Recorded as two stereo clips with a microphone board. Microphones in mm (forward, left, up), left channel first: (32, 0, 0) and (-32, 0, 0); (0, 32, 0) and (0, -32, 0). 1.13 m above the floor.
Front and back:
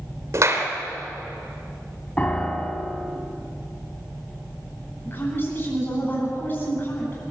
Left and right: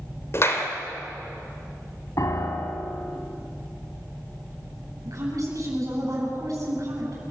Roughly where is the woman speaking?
Ahead right.